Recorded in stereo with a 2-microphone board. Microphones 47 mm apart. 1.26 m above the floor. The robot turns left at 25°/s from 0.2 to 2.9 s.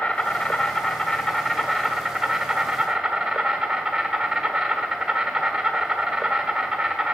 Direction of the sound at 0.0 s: 55° left.